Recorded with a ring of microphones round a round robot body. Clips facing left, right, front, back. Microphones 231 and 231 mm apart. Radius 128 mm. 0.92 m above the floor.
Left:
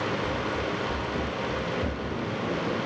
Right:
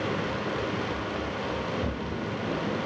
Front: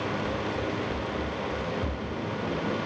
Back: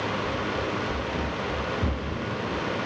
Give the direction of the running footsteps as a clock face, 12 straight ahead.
9 o'clock.